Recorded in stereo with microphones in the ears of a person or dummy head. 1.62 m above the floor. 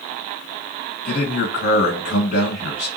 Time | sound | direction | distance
1.1 | a man speaking | 70° left (ahead or behind) | 1.6 m